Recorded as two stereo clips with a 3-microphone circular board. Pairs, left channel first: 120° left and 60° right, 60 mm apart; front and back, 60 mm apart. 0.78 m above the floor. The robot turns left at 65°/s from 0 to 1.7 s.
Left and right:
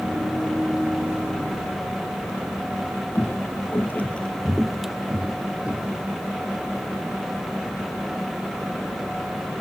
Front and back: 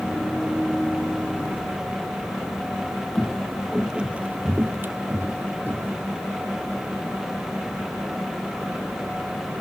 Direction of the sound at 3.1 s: 85° left.